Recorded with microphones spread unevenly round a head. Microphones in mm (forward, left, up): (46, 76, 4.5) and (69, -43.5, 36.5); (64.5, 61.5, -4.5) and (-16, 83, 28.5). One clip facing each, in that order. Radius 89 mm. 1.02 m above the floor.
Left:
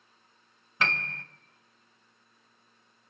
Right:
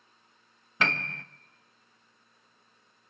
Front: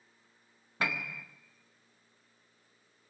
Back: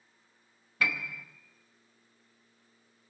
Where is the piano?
85° right, 0.8 m.